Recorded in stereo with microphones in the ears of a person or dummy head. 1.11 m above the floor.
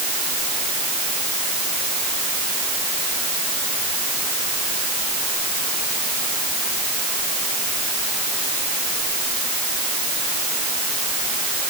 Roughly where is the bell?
No bell in this recording.